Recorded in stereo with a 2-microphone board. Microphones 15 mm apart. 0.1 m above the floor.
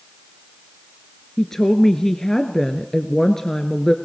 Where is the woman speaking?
30° left (ahead or behind), 1.3 m.